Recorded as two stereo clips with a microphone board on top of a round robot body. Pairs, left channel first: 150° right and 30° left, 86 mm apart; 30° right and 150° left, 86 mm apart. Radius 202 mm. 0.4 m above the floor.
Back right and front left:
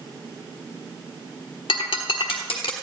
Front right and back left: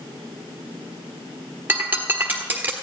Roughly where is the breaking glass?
Behind right.